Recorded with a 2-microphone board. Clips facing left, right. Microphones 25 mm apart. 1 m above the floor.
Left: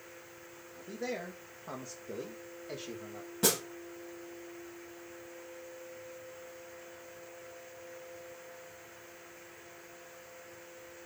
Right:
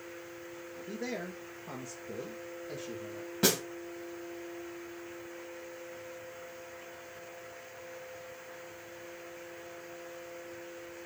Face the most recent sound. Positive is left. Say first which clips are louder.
# right 2 dB
turn(degrees=-20)  # may be behind; listen again after turning